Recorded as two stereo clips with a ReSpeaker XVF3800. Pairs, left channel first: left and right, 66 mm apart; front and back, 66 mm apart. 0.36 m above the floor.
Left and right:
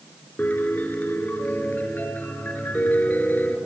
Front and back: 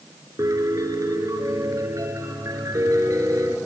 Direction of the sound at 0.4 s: 150° left.